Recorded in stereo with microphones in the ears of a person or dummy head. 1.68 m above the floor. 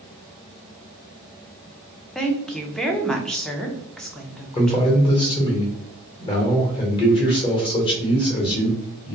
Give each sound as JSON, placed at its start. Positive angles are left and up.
{"t": 2.1, "sound": "a woman speaking", "side_deg": 5, "distance_m": 0.5}
{"t": 4.5, "sound": "a man speaking", "side_deg": 25, "distance_m": 1.0}